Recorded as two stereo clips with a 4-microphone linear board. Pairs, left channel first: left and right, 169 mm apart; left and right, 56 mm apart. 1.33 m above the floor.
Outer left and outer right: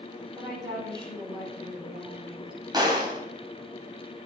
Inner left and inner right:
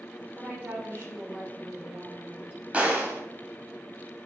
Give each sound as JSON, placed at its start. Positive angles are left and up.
{"t": 0.3, "sound": "a woman speaking", "side_deg": -25, "distance_m": 5.0}
{"t": 2.7, "sound": "a gunshot", "side_deg": -25, "distance_m": 3.5}